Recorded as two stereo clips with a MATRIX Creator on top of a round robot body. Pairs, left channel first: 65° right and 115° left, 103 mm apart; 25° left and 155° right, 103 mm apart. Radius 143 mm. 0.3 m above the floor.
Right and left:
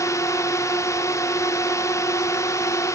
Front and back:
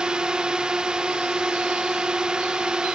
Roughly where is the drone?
Right.